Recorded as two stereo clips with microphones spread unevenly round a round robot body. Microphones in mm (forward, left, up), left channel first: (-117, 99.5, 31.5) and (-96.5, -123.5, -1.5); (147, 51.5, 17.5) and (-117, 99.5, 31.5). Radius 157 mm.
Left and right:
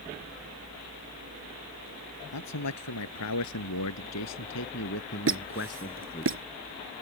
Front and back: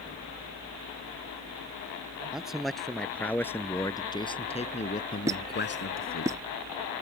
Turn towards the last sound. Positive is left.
turn(degrees=-110)